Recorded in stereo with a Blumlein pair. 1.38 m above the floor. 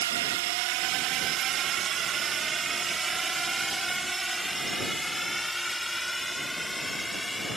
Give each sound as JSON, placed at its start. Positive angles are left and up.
{"t": 0.0, "sound": "a drone", "azimuth_deg": -55}